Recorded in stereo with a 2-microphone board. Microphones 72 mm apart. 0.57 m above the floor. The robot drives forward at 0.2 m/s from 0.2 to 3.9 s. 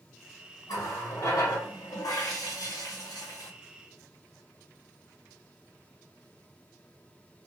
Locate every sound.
0.7 s a running tap: 50° left (ahead or behind), 1.1 m; by 3.5 s 60° left (ahead or behind), 0.9 m